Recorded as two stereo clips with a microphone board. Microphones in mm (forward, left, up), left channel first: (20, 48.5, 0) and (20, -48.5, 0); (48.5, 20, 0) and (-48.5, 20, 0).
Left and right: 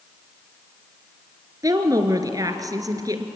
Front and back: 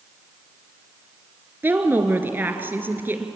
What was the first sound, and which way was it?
A woman speaking, 120° right.